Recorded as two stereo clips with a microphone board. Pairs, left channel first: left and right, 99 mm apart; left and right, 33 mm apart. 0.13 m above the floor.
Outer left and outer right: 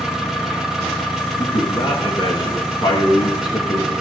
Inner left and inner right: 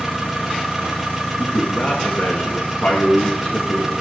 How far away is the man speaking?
About 8 m.